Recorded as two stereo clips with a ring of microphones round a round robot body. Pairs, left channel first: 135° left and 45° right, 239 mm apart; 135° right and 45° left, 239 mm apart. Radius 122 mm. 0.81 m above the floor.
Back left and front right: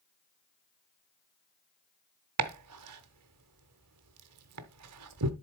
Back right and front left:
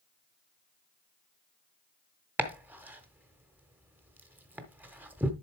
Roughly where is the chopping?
Ahead right.